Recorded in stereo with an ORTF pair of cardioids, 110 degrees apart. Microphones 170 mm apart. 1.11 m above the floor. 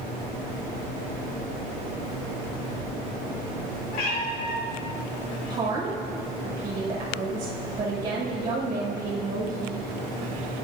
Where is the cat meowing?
60° left, 2.5 m.